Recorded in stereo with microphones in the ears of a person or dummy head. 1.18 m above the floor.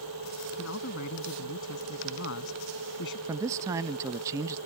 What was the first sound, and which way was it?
A man speaking, 70° left (ahead or behind).